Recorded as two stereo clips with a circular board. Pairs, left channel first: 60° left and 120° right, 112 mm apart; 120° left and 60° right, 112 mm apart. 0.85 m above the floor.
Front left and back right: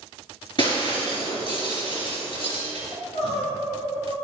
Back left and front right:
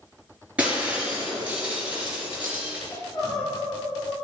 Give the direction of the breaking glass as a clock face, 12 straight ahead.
11 o'clock.